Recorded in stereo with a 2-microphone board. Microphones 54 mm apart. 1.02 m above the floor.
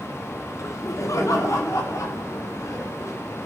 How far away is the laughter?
About 3 m.